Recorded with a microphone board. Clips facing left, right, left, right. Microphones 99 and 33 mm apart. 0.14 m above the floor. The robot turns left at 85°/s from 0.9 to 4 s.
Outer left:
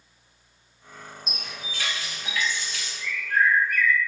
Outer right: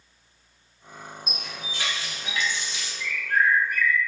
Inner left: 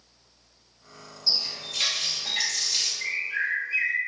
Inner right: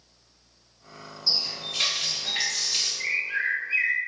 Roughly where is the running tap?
Ahead.